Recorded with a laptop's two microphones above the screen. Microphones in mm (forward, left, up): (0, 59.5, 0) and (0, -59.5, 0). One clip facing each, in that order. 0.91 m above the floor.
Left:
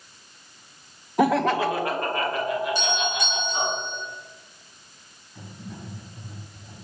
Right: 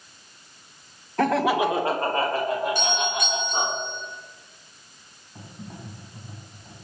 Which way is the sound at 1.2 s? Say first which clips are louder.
Left 1 dB; 15° left (ahead or behind).